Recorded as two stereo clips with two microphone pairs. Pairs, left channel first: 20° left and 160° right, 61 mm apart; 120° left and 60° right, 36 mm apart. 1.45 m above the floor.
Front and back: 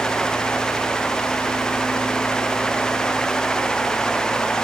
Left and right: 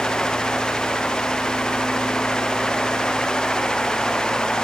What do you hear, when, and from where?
Only background noise.